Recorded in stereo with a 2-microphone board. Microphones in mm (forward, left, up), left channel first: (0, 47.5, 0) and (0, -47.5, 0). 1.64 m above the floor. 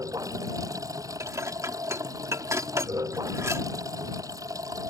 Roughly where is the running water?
Right.